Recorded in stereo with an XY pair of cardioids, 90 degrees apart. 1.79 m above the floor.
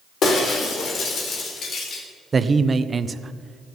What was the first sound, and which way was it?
Breaking glass, 65° left.